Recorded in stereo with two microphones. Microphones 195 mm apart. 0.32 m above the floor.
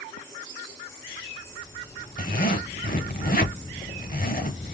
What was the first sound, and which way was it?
A zipper, 45° left (ahead or behind).